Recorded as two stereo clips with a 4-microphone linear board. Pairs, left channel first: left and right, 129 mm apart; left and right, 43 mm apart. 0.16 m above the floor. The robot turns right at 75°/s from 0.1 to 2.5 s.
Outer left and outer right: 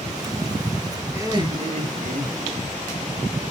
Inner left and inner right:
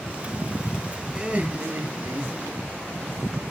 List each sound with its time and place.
1.1 s laughter: 160° right, 2.5 m; by 2.6 s 55° right, 2.5 m